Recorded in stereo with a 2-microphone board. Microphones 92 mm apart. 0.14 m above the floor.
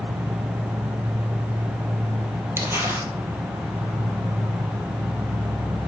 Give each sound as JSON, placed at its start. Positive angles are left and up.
{"t": 0.0, "sound": "an insect", "side_deg": -70, "distance_m": 1.0}
{"t": 2.6, "sound": "crumpling", "side_deg": -25, "distance_m": 1.6}